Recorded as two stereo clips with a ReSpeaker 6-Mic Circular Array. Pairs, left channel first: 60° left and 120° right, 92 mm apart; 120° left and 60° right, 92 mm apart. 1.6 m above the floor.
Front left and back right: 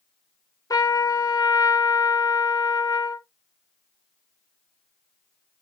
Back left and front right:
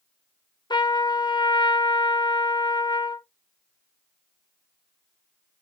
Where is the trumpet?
100° left, 0.9 m.